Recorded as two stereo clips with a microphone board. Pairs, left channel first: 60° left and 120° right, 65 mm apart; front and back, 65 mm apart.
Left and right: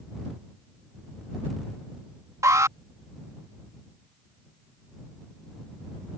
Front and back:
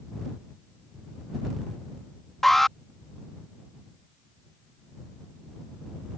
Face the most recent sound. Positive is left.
turn(degrees=-85)